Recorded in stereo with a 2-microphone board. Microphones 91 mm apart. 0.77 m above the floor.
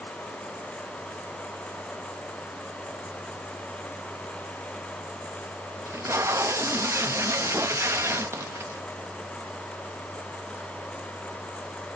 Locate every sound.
5.9 s tape being pulled: 30° right (ahead or behind), 0.8 m